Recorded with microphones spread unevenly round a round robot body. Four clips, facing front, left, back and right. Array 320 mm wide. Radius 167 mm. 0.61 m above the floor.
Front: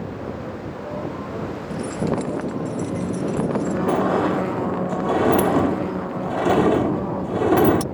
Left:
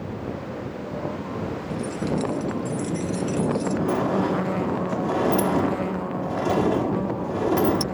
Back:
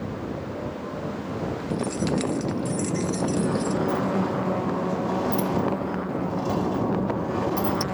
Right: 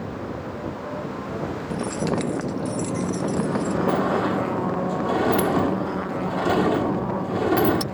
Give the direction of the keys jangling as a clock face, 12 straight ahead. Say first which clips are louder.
Right 2 dB, front 2 dB; 4 o'clock.